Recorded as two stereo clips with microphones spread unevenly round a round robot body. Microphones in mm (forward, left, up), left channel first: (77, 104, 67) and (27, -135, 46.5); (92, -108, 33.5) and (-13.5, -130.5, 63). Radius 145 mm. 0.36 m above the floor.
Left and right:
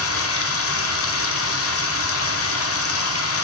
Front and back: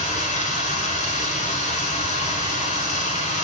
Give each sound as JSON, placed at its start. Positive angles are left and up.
{"t": 0.0, "sound": "running water", "azimuth_deg": 45, "distance_m": 0.7}